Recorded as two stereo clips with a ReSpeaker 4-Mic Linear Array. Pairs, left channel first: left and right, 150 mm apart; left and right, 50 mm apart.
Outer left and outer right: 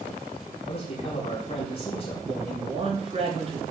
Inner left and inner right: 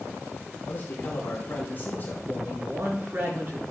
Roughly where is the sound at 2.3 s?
Right.